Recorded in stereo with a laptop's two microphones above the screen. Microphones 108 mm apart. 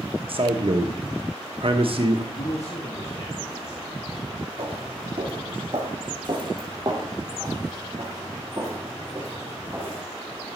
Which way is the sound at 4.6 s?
55° right (ahead or behind).